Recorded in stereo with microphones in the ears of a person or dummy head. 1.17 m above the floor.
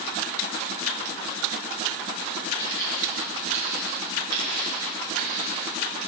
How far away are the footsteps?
About 1.9 m.